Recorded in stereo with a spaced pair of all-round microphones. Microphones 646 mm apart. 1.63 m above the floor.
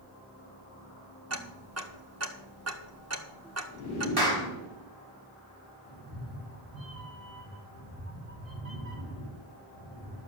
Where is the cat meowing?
60° right (ahead or behind), 4.5 m.